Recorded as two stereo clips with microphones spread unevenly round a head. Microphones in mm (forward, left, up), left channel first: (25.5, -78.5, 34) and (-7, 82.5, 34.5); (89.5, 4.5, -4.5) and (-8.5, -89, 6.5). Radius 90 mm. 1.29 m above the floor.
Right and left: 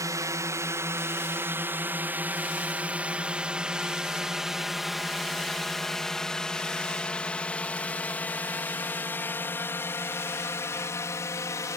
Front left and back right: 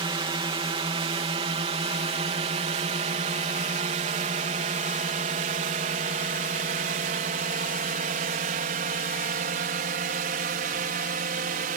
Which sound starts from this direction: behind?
A drone, at 0.0 s.